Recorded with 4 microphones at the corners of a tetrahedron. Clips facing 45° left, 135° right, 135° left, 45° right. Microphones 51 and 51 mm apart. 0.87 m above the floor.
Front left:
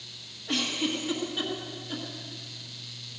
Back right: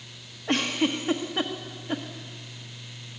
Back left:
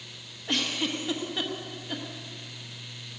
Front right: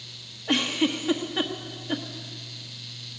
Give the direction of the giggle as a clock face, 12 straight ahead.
4 o'clock.